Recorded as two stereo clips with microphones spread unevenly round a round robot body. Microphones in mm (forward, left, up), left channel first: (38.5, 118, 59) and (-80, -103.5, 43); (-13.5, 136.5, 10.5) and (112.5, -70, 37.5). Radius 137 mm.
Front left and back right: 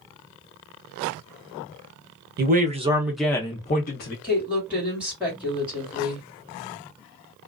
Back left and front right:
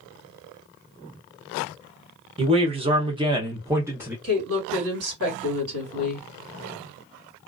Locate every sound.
2.4 s a man speaking: 125° right, 0.7 m; by 4.1 s 25° left, 0.8 m
4.2 s a woman speaking: 35° right, 1.9 m